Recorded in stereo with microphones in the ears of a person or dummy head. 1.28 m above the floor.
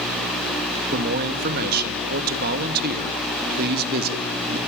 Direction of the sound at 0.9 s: 50° right (ahead or behind).